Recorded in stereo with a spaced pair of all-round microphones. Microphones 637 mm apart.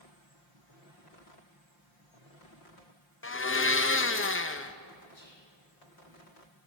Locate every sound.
3.2 s a blender: 20° left (ahead or behind), 0.5 m
5.1 s whispering: 60° left (ahead or behind), 3.5 m